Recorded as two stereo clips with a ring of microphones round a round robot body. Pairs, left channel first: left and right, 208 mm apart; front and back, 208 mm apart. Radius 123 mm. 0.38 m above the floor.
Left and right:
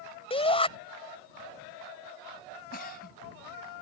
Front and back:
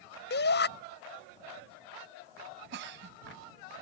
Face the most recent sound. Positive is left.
turn(degrees=140)